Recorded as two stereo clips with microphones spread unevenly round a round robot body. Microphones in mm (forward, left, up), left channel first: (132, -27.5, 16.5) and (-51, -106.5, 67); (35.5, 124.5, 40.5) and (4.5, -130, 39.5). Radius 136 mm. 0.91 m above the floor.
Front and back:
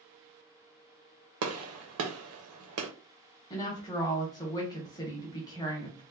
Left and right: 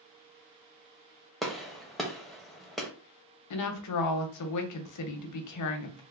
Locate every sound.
1.4 s a gunshot: 170° left, 0.5 m
3.5 s a woman speaking: 90° left, 0.7 m